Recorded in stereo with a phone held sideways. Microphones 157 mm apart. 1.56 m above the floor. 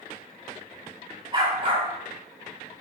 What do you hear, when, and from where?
1.3 s a dog barking: 30° right (ahead or behind), 3.5 m